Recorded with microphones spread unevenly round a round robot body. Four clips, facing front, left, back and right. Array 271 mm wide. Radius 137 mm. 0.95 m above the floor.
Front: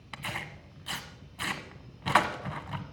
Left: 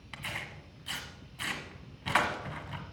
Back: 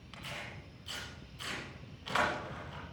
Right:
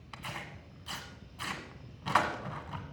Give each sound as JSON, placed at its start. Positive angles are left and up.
{"t": 0.1, "sound": "tearing paper", "azimuth_deg": 10, "distance_m": 1.4}